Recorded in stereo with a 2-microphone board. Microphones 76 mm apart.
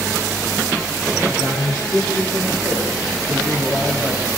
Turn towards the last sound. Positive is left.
turn(degrees=-45)  # may be behind; listen again after turning